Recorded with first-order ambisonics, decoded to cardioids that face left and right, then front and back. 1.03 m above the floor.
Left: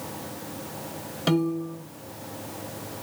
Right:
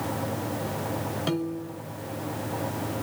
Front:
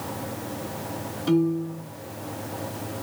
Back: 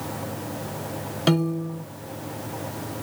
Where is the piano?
160° left, 1.2 m.